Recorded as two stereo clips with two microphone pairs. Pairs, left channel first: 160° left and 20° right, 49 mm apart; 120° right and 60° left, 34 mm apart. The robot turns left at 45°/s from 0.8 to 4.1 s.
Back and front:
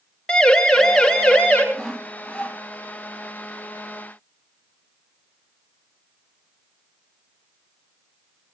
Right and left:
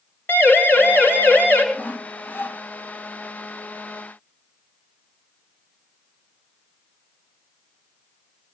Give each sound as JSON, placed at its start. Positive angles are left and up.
{"t": 0.3, "sound": "a siren", "azimuth_deg": -120, "distance_m": 6.5}
{"t": 1.7, "sound": "sawing", "azimuth_deg": -110, "distance_m": 2.0}